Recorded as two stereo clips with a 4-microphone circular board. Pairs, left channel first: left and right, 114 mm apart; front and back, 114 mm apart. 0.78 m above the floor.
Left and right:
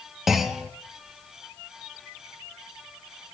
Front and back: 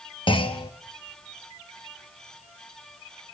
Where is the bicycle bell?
No bicycle bell in this recording.